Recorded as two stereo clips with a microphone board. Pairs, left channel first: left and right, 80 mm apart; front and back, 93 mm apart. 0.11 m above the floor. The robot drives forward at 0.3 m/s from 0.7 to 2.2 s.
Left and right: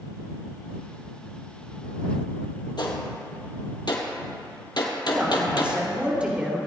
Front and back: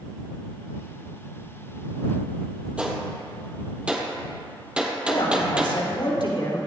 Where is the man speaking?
15° right, 3 m.